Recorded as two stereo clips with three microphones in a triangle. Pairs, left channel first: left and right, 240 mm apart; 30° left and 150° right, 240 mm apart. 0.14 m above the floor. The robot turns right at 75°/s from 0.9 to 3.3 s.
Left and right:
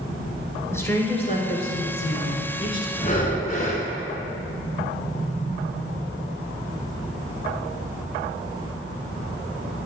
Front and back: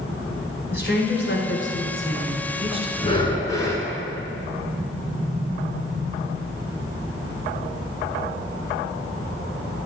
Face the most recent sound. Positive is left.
turn(degrees=95)